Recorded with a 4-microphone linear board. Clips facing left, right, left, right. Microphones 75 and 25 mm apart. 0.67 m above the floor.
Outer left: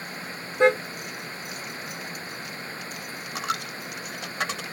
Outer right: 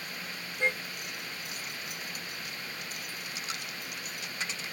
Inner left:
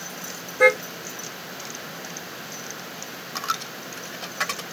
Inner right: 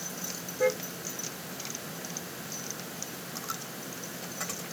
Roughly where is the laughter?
I don't hear laughter.